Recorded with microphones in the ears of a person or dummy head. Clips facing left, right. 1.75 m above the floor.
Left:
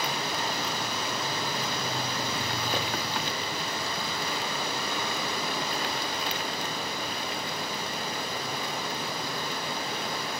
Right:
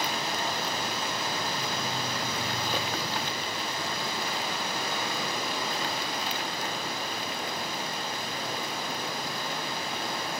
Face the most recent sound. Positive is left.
turn(degrees=75)  # may be behind; listen again after turning